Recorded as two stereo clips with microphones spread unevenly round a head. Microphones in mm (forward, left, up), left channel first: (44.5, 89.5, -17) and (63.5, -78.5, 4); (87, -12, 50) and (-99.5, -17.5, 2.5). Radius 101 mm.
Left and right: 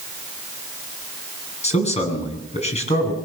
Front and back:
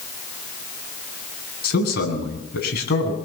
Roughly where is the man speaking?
Ahead left.